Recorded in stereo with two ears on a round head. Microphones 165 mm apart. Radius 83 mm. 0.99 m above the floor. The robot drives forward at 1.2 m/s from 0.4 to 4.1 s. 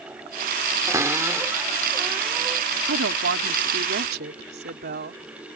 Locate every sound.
0.9 s a cupboard door: 20° right (ahead or behind); by 2.7 s 10° right (ahead or behind)
2.9 s a woman speaking: 75° right (ahead or behind); by 5.2 s 60° right (ahead or behind)